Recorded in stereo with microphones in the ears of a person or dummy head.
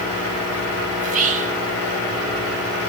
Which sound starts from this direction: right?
Whispering, at 1.0 s.